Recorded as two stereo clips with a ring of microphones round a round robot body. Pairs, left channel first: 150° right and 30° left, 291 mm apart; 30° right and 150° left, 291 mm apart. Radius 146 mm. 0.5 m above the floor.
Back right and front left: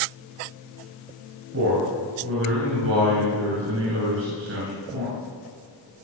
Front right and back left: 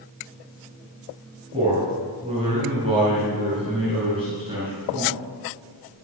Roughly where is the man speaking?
Left.